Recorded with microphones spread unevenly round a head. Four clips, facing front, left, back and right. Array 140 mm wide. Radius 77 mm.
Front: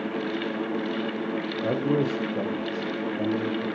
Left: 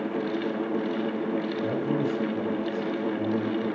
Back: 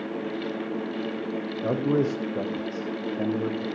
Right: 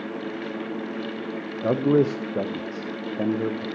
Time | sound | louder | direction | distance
1.6 | a man speaking | right 11 dB, back 1 dB | 95° right | 0.9 m